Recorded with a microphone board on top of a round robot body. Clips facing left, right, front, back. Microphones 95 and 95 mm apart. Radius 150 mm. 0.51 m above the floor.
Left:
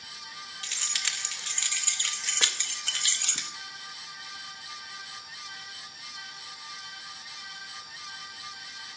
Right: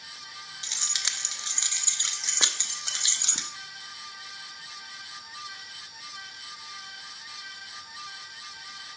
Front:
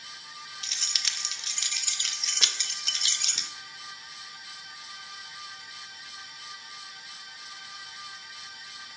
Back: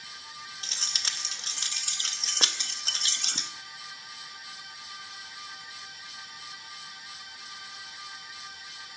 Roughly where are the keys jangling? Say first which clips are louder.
Even, back 2 dB; behind right.